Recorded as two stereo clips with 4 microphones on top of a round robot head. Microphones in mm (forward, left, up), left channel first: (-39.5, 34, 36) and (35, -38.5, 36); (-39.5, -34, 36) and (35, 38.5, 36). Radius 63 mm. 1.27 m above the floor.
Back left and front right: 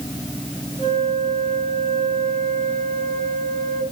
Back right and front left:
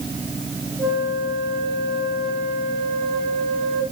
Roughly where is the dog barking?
No dog barking in this recording.